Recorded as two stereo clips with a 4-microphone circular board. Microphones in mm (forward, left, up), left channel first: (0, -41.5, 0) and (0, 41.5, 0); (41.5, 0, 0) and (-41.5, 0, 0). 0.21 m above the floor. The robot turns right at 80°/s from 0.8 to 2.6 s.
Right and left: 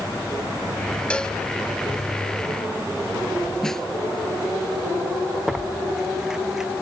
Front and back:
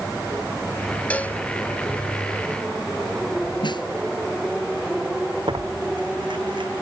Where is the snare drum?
5° right.